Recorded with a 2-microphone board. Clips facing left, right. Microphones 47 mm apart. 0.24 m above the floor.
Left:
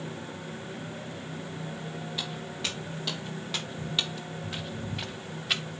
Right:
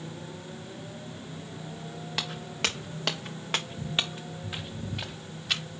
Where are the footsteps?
85° right, 1.8 m; by 5.8 s 15° left (ahead or behind), 1.9 m.